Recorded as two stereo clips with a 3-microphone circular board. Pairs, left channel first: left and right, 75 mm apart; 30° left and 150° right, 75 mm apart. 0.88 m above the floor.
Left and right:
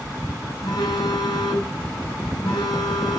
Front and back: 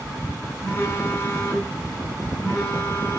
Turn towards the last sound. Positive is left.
turn(degrees=90)